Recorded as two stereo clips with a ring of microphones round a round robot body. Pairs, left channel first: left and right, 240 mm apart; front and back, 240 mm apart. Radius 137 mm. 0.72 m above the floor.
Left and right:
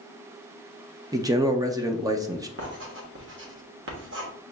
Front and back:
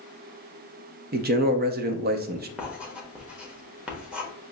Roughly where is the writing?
Right.